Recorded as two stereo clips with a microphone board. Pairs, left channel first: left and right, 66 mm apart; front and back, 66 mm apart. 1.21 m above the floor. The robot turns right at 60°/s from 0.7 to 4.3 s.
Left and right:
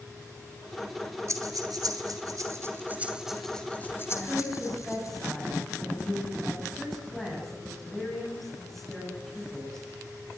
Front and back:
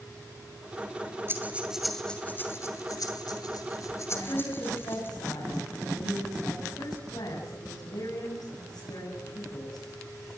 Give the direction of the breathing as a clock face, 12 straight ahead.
4 o'clock.